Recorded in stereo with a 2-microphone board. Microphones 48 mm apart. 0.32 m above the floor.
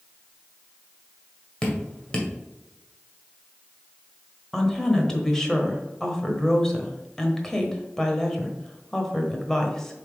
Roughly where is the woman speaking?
Centre.